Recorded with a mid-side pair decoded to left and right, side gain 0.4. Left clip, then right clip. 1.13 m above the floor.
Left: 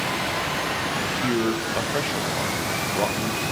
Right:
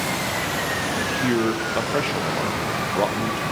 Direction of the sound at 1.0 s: 20° right.